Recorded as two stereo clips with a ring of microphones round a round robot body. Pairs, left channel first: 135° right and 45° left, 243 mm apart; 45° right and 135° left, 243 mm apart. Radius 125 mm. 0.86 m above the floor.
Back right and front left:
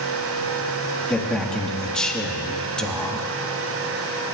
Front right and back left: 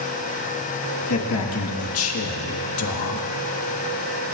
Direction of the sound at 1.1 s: 50° right.